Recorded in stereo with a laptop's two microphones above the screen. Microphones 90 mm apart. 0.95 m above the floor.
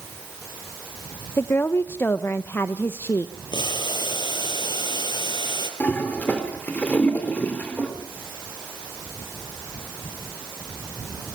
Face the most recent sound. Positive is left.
turn(degrees=15)  # may be behind; listen again after turning